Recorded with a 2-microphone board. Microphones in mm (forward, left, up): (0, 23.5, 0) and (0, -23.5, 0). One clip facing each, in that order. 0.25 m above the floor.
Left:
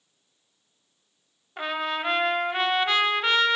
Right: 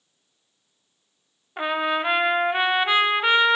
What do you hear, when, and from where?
1.6 s a trumpet: 15° right (ahead or behind), 0.5 m